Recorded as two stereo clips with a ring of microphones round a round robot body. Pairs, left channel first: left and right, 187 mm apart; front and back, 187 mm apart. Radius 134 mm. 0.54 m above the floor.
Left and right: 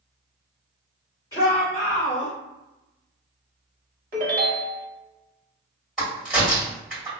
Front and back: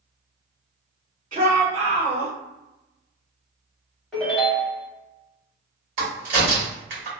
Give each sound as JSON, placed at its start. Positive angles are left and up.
{"t": 1.3, "sound": "a shout", "azimuth_deg": 160, "distance_m": 1.9}
{"t": 4.1, "sound": "a ringtone", "azimuth_deg": -90, "distance_m": 0.8}
{"t": 6.0, "sound": "a crack", "azimuth_deg": 180, "distance_m": 1.9}